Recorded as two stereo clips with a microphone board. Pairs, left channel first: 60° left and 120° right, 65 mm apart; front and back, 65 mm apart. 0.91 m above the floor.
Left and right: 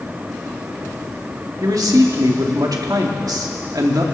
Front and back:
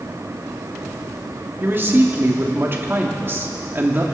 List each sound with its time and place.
1.6 s a man speaking: 130° right, 2 m